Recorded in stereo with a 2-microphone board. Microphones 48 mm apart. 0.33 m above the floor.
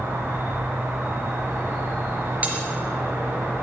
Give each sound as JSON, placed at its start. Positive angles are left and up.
{"t": 0.0, "sound": "an insect", "side_deg": -65, "distance_m": 5.5}
{"t": 2.4, "sound": "cutlery clinking", "side_deg": -35, "distance_m": 3.0}